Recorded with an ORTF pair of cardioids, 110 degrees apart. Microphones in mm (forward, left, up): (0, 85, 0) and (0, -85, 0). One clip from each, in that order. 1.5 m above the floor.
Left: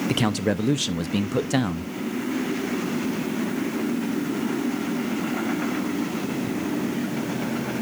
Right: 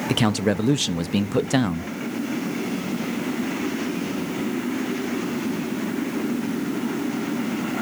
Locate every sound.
0.1 s a man speaking: 10° right, 0.5 m